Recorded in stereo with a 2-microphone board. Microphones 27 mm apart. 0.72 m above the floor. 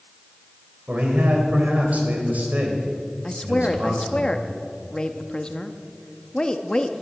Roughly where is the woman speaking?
Left.